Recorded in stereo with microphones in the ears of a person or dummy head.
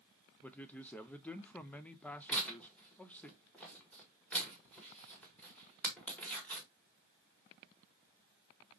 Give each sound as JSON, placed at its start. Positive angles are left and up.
{"t": 0.4, "sound": "a man speaking", "side_deg": 5, "distance_m": 0.5}
{"t": 2.3, "sound": "tearing paper", "side_deg": 5, "distance_m": 1.4}